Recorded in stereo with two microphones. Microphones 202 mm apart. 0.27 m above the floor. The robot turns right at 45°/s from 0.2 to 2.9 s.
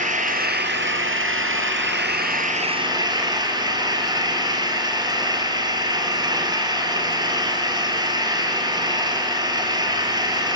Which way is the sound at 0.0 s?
140° right.